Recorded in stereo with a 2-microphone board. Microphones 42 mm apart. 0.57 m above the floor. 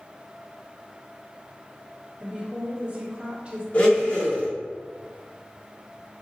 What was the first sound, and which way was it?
A woman speaking, 30° right (ahead or behind).